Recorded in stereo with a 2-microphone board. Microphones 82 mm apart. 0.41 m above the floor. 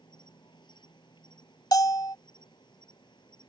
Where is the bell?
55° left (ahead or behind).